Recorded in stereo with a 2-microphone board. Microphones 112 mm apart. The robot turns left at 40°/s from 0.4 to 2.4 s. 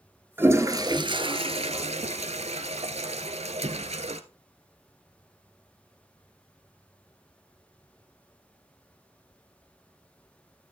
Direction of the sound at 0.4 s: 20° right.